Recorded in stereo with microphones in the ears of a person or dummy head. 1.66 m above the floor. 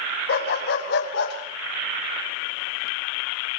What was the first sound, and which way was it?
A dog barking, 60° left (ahead or behind).